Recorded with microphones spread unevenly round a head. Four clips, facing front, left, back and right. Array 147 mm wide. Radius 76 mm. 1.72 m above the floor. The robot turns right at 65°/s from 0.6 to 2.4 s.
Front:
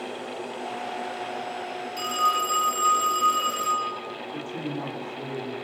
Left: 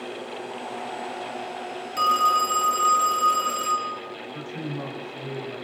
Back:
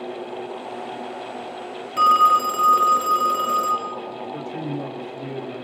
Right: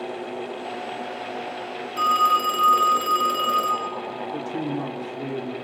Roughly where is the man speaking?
Right.